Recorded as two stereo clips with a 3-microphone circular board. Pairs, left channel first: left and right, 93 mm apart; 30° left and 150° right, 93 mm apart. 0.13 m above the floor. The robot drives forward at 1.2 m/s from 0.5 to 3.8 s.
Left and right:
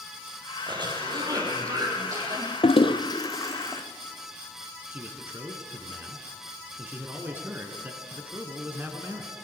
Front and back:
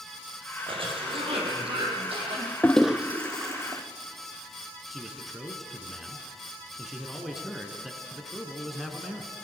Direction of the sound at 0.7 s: 130° right.